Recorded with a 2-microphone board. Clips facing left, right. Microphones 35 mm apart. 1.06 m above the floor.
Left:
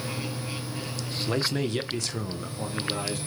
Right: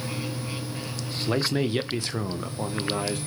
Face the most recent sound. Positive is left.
turn(degrees=-20)  # may be behind; listen again after turning